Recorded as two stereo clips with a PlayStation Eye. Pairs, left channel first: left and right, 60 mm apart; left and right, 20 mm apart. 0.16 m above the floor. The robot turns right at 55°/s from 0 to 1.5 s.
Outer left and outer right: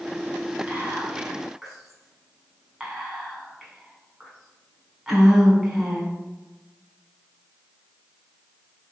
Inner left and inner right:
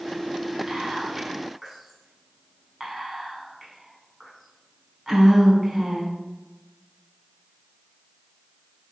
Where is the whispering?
20° right (ahead or behind), 1.3 m; by 6.1 s 5° right (ahead or behind), 1.3 m.